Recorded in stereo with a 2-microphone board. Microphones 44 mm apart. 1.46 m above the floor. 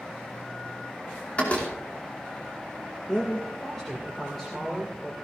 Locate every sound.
1.4 s a door slam: 35° left (ahead or behind), 2.5 m
3.1 s a man speaking: 10° left (ahead or behind), 2 m